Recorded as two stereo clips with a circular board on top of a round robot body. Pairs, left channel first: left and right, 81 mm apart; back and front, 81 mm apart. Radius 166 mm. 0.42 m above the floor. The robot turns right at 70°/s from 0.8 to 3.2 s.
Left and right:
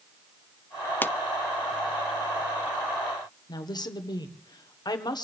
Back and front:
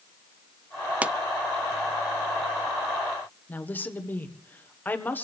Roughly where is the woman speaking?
Behind left.